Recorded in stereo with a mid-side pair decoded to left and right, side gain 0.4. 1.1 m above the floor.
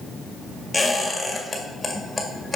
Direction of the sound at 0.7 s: 15° left.